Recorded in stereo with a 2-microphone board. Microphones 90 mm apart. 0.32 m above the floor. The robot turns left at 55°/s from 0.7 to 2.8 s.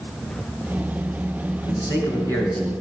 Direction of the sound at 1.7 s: 60° left.